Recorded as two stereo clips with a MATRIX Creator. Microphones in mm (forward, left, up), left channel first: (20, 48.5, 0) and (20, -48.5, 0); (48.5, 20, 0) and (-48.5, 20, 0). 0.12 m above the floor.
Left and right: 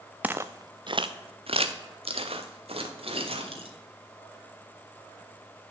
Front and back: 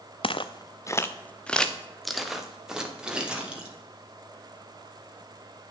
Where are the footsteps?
15° right, 0.7 m; by 3.7 s 100° right, 2.5 m.